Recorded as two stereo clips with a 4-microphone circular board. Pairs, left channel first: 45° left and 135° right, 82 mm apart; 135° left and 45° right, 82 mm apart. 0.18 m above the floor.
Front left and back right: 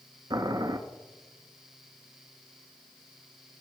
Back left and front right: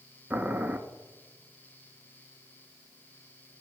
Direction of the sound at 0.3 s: 115° right.